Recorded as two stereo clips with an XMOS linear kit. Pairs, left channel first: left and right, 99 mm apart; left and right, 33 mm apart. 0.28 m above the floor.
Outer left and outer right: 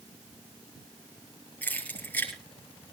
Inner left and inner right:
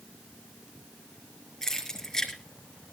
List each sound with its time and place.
1.6 s keys jangling: 15° left (ahead or behind), 5 m